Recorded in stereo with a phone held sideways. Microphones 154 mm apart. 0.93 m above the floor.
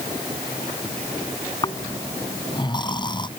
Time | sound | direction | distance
1.6 | snoring | 30° left (ahead or behind) | ?